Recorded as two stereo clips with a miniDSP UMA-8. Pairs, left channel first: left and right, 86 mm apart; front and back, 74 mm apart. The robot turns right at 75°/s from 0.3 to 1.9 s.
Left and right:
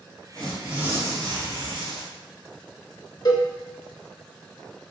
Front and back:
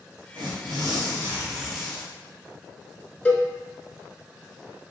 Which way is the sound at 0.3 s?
165° left.